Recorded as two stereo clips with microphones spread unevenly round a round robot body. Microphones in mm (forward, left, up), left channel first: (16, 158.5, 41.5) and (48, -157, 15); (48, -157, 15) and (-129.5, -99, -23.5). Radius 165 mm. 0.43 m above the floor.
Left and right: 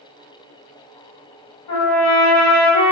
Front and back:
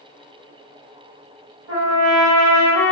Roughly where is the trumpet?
Behind left.